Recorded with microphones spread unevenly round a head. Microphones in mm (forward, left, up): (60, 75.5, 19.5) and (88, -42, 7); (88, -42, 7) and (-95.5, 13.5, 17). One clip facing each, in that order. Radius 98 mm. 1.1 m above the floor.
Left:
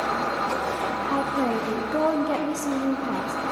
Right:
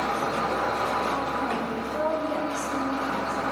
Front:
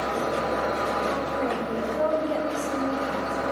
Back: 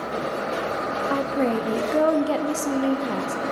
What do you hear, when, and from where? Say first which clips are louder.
1.1 s a woman speaking: left 3 dB, back 4 dB; 145° left, 0.8 m